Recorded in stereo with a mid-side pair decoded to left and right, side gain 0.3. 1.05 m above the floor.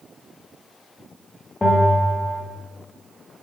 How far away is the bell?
About 1.8 m.